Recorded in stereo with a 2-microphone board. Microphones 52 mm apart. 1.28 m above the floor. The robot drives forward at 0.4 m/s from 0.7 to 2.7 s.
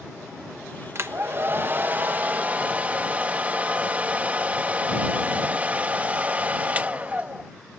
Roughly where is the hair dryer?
Right.